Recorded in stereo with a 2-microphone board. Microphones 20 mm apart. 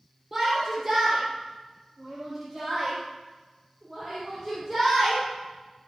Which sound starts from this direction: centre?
A shout, at 0.3 s.